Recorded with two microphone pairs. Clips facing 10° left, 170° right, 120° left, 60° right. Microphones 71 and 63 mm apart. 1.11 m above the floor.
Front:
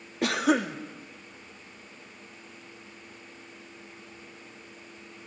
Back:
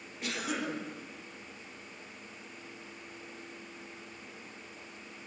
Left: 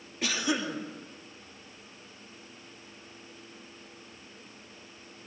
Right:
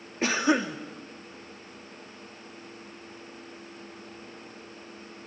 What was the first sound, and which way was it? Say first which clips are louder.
A cough: front 11 dB, right 6 dB; 10° right.